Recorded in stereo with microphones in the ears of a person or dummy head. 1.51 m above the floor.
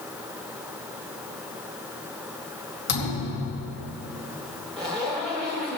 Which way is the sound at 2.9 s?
65° left (ahead or behind).